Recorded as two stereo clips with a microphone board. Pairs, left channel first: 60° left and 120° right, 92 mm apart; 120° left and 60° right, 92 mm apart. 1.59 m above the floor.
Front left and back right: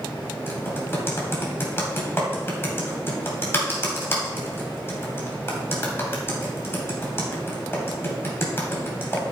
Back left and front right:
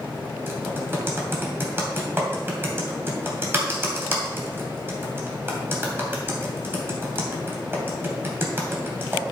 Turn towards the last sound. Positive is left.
turn(degrees=0)